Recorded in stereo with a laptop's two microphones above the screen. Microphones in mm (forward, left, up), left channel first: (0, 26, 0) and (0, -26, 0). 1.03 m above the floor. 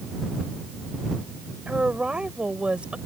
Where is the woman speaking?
20° right (ahead or behind).